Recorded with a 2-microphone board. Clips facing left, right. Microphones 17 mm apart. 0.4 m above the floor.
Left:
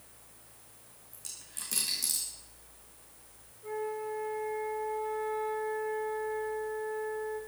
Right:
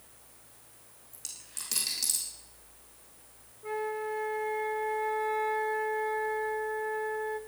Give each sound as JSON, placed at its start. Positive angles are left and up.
{"t": 1.1, "sound": "a dropped coin", "side_deg": -40, "distance_m": 7.0}
{"t": 3.6, "sound": "a flute", "side_deg": -45, "distance_m": 1.2}